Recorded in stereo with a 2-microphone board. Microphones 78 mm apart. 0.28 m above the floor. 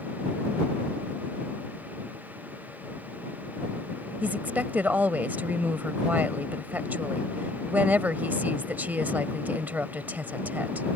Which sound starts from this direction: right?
A woman speaking, at 4.2 s.